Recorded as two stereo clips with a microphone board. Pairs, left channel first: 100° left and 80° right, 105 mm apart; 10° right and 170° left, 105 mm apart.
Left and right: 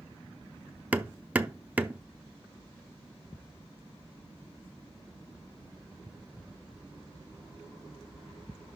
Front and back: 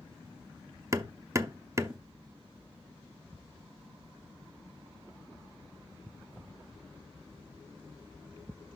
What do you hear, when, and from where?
0.9 s hammering: 150° right, 0.6 m